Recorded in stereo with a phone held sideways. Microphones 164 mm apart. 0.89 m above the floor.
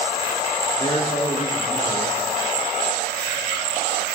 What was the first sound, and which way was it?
A man speaking, 30° left (ahead or behind).